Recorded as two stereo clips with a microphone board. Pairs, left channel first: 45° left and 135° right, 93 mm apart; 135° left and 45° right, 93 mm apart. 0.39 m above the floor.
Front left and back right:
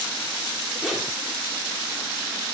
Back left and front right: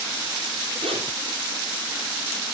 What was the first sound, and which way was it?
A zipper, 50° right.